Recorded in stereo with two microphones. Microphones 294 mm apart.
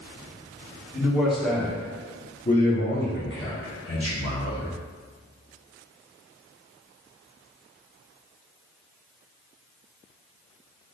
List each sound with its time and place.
0.9 s a man speaking: 10° right (ahead or behind), 1.5 m; by 4.7 s 55° left (ahead or behind), 2.0 m